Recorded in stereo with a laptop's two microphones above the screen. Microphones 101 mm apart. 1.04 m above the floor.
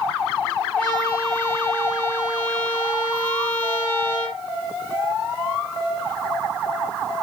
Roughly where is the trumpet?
Centre.